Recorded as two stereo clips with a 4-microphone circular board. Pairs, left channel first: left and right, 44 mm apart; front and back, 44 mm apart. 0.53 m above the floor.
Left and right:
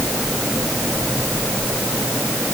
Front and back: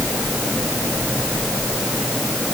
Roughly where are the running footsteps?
No running footsteps in this recording.